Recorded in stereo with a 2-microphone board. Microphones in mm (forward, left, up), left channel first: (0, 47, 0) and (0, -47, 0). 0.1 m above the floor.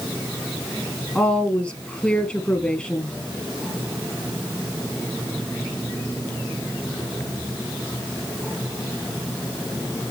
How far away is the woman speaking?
About 2 m.